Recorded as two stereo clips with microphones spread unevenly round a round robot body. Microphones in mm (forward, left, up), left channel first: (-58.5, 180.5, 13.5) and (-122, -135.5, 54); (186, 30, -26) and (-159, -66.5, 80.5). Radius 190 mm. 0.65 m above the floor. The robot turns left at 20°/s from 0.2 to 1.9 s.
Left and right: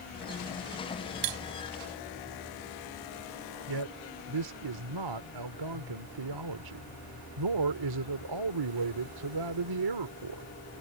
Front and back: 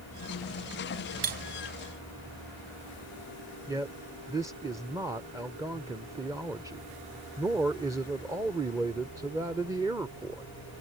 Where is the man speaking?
75° right.